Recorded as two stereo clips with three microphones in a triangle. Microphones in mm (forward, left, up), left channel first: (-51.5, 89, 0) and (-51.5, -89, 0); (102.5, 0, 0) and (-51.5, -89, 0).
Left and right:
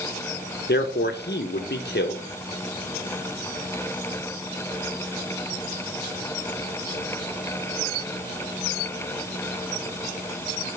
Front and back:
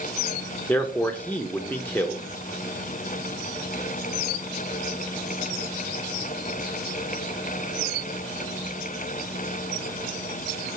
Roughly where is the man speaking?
Left.